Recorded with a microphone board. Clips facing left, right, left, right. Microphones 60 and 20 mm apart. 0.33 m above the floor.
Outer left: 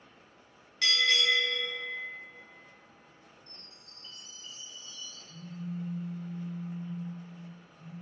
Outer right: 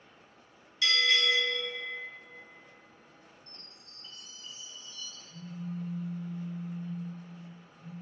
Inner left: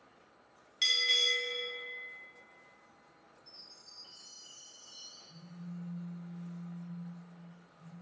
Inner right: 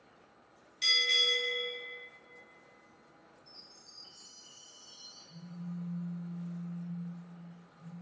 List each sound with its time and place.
0.8 s a bell: 65° left (ahead or behind), 1.0 m
3.5 s a chime: 15° left (ahead or behind), 1.4 m
5.3 s a phone buzzing: 10° left (ahead or behind), 0.9 m